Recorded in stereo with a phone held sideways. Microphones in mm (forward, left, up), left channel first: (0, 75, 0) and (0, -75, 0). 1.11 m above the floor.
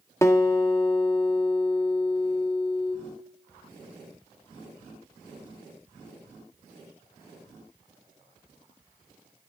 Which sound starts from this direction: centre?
A guitar, at 0.2 s.